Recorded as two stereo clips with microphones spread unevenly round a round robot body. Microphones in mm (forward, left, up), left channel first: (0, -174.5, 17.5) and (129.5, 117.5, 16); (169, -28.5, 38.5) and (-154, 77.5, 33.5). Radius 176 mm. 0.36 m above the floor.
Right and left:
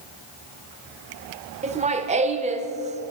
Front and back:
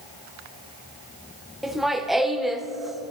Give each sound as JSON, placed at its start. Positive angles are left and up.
{"t": 1.6, "sound": "laughter", "azimuth_deg": 75, "distance_m": 1.0}